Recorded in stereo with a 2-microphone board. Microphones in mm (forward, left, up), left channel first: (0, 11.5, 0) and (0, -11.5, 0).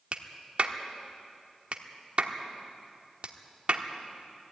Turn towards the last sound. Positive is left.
turn(degrees=-55)  # may be behind; listen again after turning